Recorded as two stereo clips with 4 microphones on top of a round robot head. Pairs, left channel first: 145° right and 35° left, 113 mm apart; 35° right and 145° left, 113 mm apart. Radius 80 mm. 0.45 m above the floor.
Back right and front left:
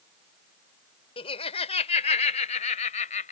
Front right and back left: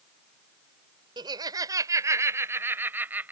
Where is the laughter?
170° right; by 3.3 s 140° right.